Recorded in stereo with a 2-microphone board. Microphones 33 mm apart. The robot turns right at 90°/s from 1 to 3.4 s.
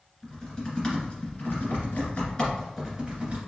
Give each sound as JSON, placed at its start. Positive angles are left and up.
{"t": 0.2, "sound": "typing on a keyboard", "side_deg": 20, "distance_m": 2.0}